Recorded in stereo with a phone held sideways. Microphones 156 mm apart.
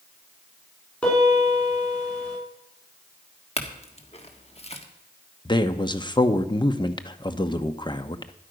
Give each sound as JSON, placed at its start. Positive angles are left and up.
{"t": 1.0, "sound": "a piano", "side_deg": 5, "distance_m": 6.0}
{"t": 3.6, "sound": "a clink", "side_deg": 40, "distance_m": 1.4}
{"t": 5.5, "sound": "a man speaking", "side_deg": 30, "distance_m": 0.9}